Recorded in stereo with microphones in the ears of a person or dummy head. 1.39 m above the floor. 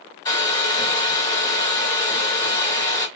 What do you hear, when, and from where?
0.2 s a hair dryer: 20° left (ahead or behind), 2 m